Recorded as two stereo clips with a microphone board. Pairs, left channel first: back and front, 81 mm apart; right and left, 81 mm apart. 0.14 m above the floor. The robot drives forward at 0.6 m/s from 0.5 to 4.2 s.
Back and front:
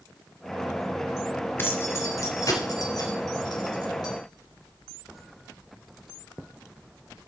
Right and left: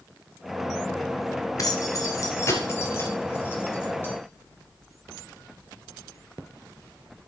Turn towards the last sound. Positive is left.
turn(degrees=-155)